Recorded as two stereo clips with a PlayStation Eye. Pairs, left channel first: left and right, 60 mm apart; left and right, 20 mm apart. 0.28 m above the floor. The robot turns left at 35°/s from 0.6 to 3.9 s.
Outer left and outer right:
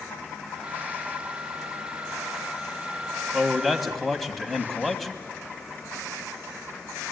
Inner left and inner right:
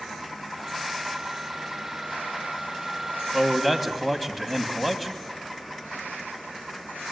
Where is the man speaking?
15° right (ahead or behind), 1.8 m; by 5.1 s centre (ahead or behind), 1.8 m.